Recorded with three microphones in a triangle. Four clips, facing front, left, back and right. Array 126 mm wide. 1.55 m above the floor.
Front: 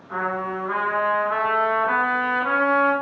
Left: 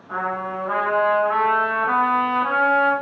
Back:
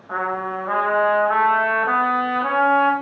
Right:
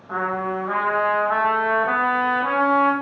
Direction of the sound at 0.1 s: 155° right.